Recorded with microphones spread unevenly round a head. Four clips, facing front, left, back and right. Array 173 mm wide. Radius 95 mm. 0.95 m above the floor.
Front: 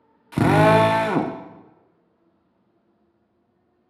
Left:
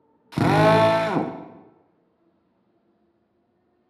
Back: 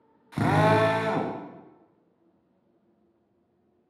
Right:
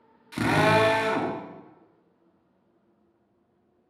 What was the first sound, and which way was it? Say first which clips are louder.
A drill: left 5 dB, front 6 dB; 25° left.